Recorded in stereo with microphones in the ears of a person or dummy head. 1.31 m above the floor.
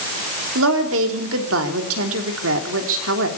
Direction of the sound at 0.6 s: 85° right.